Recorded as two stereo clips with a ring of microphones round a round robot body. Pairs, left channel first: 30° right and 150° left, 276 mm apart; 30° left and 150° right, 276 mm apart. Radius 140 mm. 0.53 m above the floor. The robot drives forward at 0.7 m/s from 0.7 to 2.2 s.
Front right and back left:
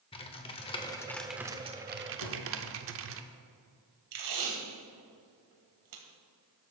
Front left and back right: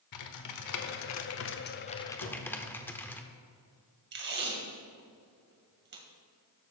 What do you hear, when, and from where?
0.1 s typing on a keyboard: 40° left, 1.1 m; by 3.2 s 110° left, 0.8 m
2.2 s a drawer: 5° right, 3 m
4.1 s tape being pulled: 155° left, 2 m